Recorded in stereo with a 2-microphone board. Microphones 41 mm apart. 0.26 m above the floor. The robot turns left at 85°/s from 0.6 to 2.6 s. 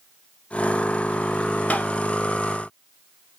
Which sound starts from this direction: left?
Tapping, at 1.7 s.